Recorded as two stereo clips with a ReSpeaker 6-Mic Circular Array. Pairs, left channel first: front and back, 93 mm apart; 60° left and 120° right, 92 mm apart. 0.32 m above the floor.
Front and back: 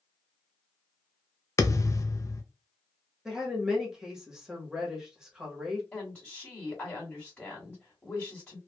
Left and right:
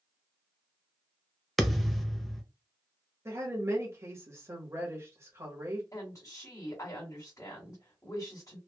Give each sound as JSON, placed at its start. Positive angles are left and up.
{"t": 1.6, "sound": "a thud", "azimuth_deg": -25, "distance_m": 0.5}
{"t": 3.2, "sound": "a woman speaking", "azimuth_deg": -105, "distance_m": 1.2}
{"t": 5.9, "sound": "a woman speaking", "azimuth_deg": 65, "distance_m": 1.8}